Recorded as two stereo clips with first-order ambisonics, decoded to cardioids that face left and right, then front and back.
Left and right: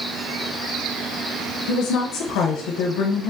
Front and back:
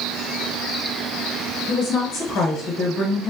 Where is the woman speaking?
65° left, 0.8 m.